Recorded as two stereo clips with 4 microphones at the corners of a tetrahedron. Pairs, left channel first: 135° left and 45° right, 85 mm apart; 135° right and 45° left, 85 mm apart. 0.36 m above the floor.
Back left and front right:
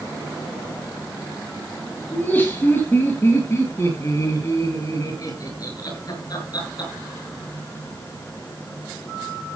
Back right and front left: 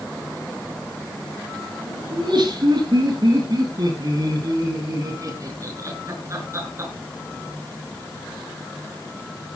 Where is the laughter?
65° left, 7.5 m; by 6.9 s 100° left, 6.5 m.